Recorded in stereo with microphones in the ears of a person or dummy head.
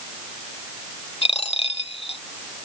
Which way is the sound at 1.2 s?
40° left (ahead or behind).